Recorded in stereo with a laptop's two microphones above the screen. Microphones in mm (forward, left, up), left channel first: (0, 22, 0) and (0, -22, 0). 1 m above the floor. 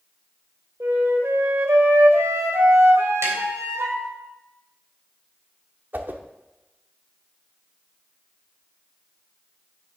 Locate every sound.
0.8 s a flute: 80° right, 1.8 m
3.2 s tapping: 80° right, 3 m
5.9 s a whoosh: 45° right (ahead or behind), 1.0 m